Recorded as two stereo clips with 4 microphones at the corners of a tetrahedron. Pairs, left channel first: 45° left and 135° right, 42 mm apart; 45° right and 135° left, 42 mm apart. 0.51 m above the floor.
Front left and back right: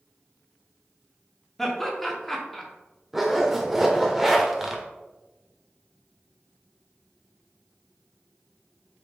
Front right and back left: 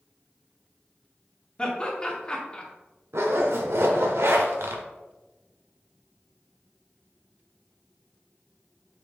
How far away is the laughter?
About 0.7 m.